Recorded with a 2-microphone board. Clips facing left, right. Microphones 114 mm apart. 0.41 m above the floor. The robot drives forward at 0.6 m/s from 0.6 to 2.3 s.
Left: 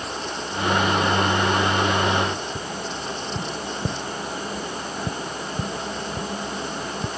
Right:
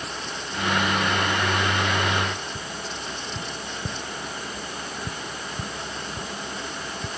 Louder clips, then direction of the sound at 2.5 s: Left 4 dB; 40° left (ahead or behind).